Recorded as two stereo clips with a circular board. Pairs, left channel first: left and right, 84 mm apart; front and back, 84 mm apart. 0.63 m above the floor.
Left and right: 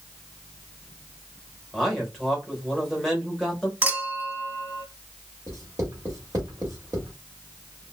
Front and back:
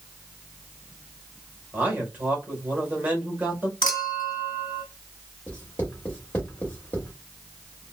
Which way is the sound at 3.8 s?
20° right.